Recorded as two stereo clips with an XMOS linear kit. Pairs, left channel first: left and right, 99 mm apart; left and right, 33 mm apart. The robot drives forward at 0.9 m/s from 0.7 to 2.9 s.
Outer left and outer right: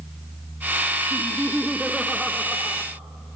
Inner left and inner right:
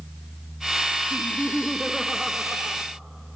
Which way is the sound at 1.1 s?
Centre (ahead or behind).